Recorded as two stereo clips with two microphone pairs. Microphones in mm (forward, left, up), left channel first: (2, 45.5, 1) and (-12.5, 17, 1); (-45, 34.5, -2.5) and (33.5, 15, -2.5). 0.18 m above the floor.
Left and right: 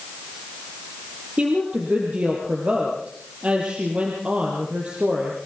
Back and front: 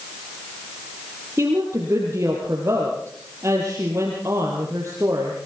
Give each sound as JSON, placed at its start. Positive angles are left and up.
{"t": 1.4, "sound": "a woman speaking", "azimuth_deg": -70, "distance_m": 4.0}